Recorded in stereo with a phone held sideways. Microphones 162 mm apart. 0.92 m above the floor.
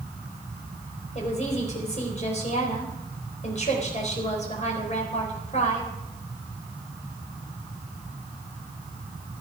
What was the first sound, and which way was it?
A woman speaking, 45° left (ahead or behind).